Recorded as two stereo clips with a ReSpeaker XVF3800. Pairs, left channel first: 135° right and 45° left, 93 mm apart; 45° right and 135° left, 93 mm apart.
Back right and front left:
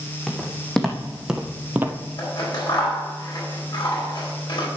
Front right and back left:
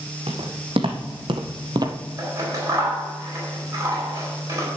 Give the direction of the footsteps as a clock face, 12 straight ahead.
7 o'clock.